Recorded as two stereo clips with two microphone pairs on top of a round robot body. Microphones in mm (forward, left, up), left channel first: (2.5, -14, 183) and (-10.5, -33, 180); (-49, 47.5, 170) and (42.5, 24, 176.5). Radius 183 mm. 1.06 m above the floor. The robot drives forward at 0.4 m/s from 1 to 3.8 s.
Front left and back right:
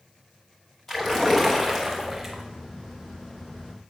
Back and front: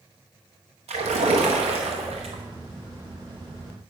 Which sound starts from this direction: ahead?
A splash, at 0.9 s.